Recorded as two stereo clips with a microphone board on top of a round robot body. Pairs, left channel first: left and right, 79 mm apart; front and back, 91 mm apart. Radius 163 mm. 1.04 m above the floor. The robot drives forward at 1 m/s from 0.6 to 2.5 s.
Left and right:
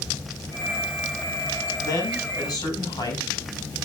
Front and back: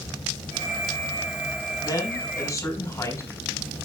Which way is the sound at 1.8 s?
50° left.